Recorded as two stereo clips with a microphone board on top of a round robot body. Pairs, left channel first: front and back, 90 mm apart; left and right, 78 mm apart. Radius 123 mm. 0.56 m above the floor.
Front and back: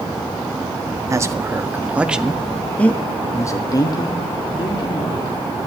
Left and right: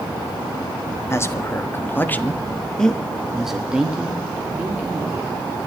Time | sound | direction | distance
1.1 | a man speaking | 135° left | 1.7 m